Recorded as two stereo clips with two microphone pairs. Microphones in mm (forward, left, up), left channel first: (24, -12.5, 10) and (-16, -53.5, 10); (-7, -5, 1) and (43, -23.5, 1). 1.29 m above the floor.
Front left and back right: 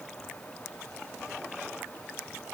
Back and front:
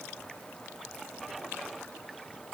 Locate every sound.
Only background noise.